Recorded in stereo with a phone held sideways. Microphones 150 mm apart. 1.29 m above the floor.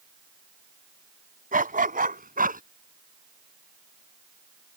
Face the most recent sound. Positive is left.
turn(degrees=-75)  # may be behind; listen again after turning